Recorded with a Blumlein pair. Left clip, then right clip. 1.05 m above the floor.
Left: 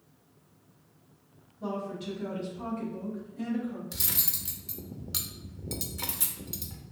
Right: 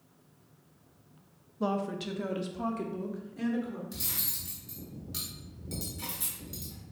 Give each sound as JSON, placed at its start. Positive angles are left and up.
{"t": 1.6, "sound": "a woman speaking", "azimuth_deg": -40, "distance_m": 0.8}
{"t": 3.9, "sound": "cutlery clinking", "azimuth_deg": 65, "distance_m": 0.9}